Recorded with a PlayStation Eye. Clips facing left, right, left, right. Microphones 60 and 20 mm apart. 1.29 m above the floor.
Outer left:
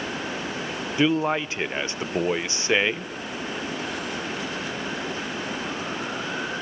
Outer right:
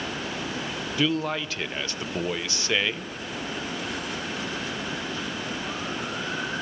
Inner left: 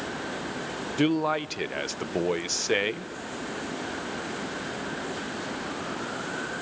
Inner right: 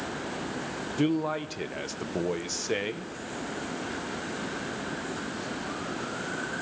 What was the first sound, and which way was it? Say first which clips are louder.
A man speaking: outer left 4 dB, inner left 3 dB; 25° left (ahead or behind).